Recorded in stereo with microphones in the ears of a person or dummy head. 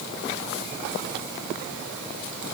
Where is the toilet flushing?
No toilet flushing in this recording.